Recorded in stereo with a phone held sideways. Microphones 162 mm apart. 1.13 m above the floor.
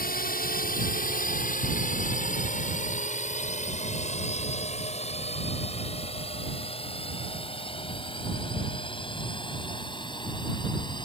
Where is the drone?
65° left (ahead or behind); by 11.1 s 30° left (ahead or behind).